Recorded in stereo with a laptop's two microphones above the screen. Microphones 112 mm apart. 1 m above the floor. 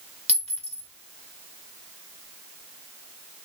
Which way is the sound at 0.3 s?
65° right (ahead or behind).